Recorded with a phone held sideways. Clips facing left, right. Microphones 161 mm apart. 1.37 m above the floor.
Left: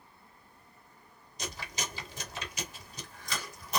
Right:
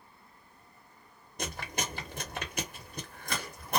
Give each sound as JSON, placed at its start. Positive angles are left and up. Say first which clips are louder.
{"t": 1.4, "sound": "chewing", "louder": "right 3 dB", "side_deg": -55, "distance_m": 0.9}